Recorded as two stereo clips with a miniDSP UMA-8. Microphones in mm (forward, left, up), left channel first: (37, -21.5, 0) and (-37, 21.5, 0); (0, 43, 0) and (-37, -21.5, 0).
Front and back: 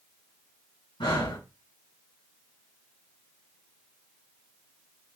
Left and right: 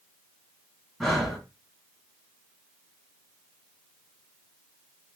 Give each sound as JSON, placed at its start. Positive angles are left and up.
{"t": 1.0, "sound": "breathing", "azimuth_deg": -30, "distance_m": 4.0}